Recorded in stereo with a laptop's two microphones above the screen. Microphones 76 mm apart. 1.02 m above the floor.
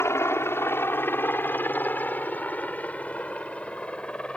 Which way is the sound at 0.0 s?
40° left (ahead or behind).